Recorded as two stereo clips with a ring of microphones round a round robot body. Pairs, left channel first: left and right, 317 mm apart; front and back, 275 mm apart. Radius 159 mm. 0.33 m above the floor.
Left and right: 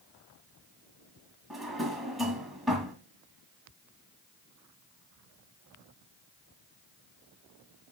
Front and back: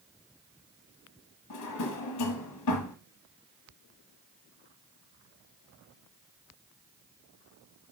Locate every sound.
1.5 s a drawer: straight ahead, 1.6 m